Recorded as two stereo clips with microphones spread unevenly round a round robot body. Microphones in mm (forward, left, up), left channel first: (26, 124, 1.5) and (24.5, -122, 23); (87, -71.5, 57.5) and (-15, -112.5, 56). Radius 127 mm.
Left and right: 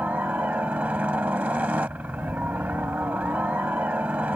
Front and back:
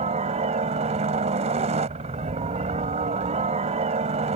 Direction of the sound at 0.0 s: 175° right.